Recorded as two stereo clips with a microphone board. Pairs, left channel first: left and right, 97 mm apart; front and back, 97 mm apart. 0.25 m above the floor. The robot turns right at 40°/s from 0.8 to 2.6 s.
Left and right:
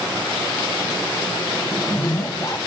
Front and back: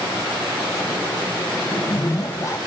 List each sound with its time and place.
1.7 s a zipper: 15° left, 1.2 m; by 2.6 s 50° left, 1.2 m